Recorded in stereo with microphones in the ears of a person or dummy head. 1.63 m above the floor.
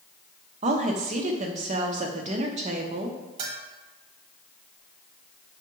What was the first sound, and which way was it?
A woman speaking, 35° right (ahead or behind).